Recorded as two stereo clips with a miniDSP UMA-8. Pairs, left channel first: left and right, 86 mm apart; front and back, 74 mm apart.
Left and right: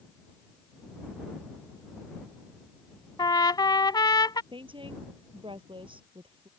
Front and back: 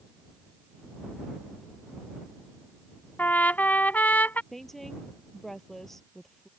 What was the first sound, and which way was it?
A trumpet, 65° left.